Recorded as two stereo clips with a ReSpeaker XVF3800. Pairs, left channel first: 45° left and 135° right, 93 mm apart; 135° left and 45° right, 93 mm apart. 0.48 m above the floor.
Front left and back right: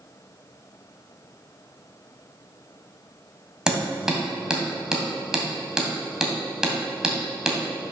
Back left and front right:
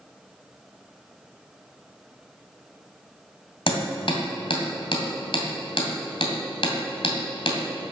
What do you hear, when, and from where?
3.7 s hammering: 145° left, 2.5 m